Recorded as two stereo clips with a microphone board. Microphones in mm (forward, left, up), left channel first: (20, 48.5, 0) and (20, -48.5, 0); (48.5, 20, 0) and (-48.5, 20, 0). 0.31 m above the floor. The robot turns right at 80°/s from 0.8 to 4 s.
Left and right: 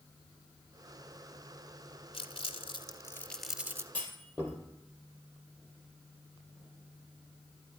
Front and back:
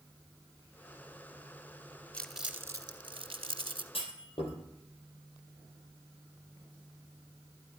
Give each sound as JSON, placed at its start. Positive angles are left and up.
{"t": 2.1, "sound": "crumpling", "azimuth_deg": 80, "distance_m": 0.9}
{"t": 3.9, "sound": "a clunk", "azimuth_deg": 15, "distance_m": 3.0}